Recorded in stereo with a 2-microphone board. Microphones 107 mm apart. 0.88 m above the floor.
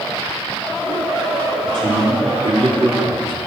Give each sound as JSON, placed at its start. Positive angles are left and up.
{"t": 1.6, "sound": "a man speaking", "side_deg": -50, "distance_m": 3.5}